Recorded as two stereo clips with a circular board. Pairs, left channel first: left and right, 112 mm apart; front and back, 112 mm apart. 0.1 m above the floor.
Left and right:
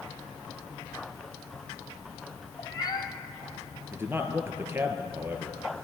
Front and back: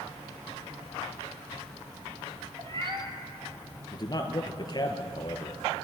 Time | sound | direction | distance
2.6 | a cat meowing | 140° left | 1.5 m
3.9 | a man speaking | 30° right | 1.8 m